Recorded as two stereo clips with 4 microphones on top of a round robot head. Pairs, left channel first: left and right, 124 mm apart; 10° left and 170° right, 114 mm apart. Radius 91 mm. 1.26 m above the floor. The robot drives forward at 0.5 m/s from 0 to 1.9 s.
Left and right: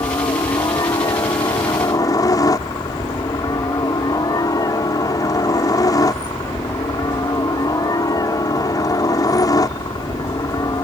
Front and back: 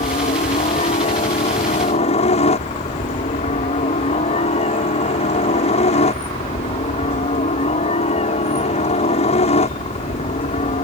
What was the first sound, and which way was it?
A helicopter, 30° left.